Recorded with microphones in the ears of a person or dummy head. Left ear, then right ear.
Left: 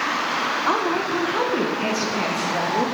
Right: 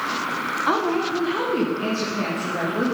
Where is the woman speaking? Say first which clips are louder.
Right 2 dB; 15° left (ahead or behind), 1.1 m; by 2.9 s 30° left (ahead or behind), 2.5 m.